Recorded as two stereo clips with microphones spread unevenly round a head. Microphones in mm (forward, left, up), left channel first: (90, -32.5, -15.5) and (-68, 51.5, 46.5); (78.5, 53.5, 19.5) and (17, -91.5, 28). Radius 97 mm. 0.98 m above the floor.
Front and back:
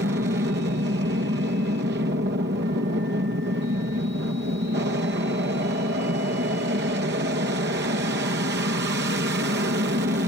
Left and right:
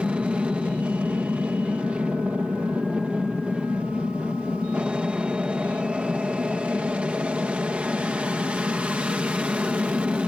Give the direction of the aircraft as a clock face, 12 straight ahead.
7 o'clock.